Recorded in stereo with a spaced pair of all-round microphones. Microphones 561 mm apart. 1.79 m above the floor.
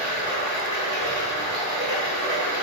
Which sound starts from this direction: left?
Running water, at 0.0 s.